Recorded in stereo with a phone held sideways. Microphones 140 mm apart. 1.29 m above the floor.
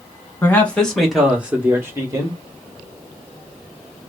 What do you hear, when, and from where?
0.4 s a man speaking: 15° left (ahead or behind), 1.7 m; by 2.4 s 30° right (ahead or behind), 2.0 m